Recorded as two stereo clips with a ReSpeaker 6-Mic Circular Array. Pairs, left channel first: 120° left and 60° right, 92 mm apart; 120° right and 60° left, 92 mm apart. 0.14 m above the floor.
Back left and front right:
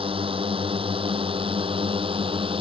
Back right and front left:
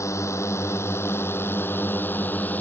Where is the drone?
65° right; by 2.6 s 50° right.